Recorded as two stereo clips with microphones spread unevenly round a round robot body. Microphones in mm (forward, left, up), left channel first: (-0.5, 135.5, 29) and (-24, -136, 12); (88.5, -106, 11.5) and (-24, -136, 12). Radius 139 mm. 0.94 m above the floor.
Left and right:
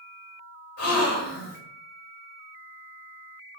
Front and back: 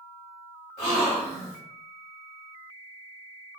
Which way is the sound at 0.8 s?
60° left.